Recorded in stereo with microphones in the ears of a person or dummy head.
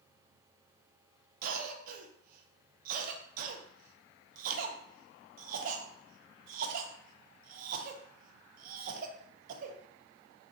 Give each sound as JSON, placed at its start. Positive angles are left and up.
{"t": 1.4, "sound": "a cough", "side_deg": -40, "distance_m": 0.5}